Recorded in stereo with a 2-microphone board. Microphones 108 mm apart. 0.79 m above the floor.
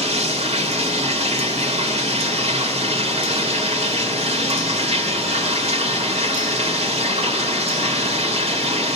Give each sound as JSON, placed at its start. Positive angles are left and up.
{"t": 0.0, "sound": "running water", "side_deg": -75, "distance_m": 2.0}